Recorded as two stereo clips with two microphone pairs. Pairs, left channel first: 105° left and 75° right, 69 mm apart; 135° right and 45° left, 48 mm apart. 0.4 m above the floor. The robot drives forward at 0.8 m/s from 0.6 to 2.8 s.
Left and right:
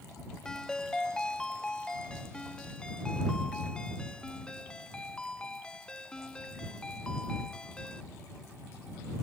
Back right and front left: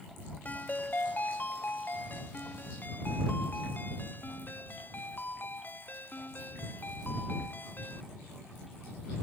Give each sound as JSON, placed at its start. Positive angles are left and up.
{"t": 0.5, "sound": "a ringtone", "azimuth_deg": 180}